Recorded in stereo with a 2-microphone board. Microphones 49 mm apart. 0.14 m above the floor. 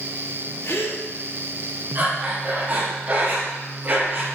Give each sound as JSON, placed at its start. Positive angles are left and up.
{"t": 0.6, "sound": "a gasp", "side_deg": 65, "distance_m": 1.3}
{"t": 1.9, "sound": "breathing", "side_deg": -40, "distance_m": 2.5}